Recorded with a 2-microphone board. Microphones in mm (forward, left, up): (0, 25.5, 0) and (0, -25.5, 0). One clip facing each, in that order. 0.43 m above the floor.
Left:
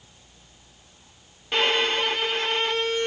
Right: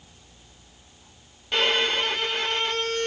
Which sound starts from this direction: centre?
A violin, at 1.5 s.